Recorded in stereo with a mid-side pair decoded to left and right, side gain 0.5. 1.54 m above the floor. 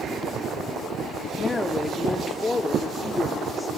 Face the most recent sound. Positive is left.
turn(degrees=25)